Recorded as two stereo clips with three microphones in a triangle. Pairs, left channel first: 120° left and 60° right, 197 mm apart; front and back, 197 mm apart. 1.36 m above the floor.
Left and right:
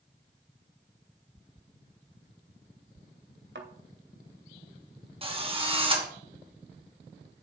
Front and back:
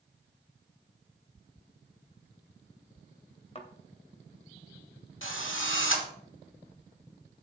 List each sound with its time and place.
3.5 s a thud: 55° right, 2 m
5.2 s a drill: straight ahead, 2.5 m